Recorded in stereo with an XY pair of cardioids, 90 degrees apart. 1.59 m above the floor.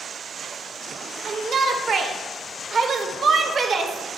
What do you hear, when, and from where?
1.2 s a shout: 50° right, 0.9 m